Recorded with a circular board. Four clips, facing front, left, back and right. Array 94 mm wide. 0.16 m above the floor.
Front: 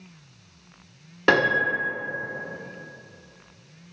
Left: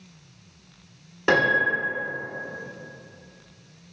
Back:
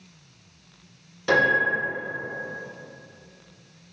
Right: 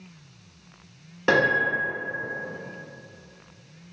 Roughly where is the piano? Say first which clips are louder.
Even, even; ahead.